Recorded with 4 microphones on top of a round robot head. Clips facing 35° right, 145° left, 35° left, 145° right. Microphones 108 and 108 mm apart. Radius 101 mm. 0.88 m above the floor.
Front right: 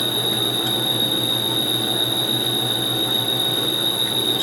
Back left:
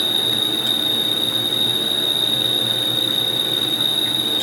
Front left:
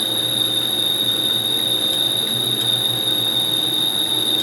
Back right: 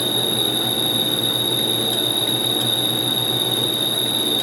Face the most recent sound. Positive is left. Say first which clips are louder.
# front right 2 dB, back right 4 dB
turn(degrees=125)